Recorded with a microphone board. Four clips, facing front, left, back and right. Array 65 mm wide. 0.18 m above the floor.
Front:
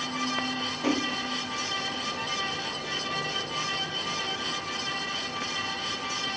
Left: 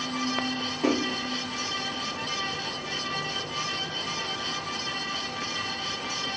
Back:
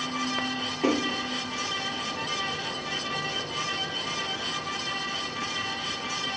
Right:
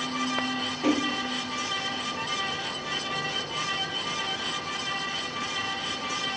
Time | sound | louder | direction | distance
0.8 | a splash | even, back 3 dB | 160° left | 2.0 m